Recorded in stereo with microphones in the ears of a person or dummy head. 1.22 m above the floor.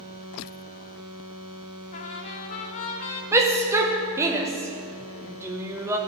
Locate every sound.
1.9 s a trumpet: 45° left (ahead or behind), 1.0 m
3.3 s a shout: 15° right (ahead or behind), 0.9 m